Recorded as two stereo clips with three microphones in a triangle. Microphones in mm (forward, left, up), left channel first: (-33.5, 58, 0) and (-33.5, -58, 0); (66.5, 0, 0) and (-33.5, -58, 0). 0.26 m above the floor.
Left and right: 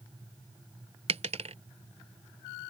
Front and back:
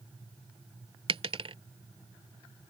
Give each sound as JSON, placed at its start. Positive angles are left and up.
{"t": 1.1, "sound": "a dropped coin", "azimuth_deg": -110}